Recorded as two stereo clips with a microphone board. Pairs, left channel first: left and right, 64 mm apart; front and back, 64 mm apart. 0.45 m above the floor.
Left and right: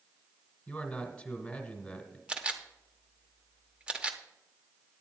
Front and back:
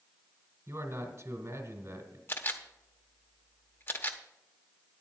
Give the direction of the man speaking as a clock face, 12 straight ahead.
7 o'clock.